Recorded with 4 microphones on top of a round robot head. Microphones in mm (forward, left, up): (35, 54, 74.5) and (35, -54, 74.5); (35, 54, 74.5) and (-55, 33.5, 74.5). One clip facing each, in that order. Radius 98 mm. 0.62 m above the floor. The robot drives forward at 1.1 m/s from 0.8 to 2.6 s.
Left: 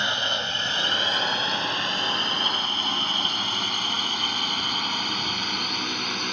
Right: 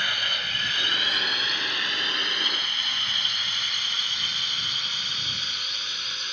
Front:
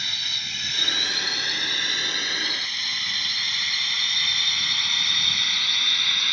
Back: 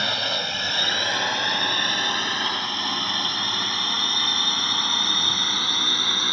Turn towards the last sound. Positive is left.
turn(degrees=135)